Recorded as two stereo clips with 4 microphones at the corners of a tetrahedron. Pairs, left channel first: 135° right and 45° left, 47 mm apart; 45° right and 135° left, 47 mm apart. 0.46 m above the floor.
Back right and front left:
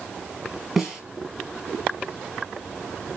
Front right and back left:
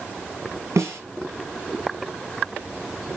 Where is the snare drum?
130° left, 3 m.